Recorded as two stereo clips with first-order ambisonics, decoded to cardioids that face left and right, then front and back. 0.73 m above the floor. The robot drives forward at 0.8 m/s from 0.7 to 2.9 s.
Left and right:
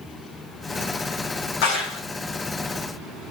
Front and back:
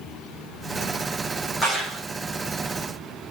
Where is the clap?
90° left, 3 m; by 2.0 s 95° left, 3 m.